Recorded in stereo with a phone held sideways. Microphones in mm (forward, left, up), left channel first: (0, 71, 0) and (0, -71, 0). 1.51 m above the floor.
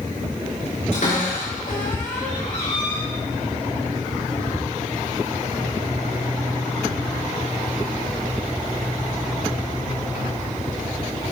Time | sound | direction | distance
0.9 | a cupboard door | 70° left (ahead or behind) | 4.5 m